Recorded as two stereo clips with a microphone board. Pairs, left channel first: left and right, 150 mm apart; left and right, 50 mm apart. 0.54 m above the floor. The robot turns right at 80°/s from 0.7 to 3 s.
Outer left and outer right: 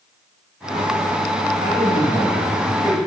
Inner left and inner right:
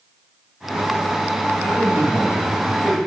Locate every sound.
1.6 s a man speaking: 65° right, 4 m; by 3.0 s 40° left, 4 m